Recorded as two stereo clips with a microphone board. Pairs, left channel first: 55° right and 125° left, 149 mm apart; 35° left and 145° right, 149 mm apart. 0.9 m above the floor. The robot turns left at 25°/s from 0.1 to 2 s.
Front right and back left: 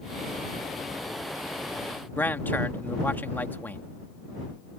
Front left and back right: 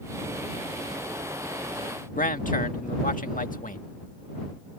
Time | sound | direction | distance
2.2 | a man speaking | 20° left | ?